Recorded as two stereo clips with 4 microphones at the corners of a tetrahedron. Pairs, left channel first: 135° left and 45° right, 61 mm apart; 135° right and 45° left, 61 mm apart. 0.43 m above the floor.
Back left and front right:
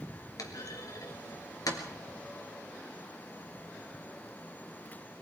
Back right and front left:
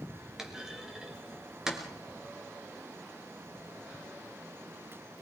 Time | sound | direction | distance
0.4 | a clunk | 125° left | 3 m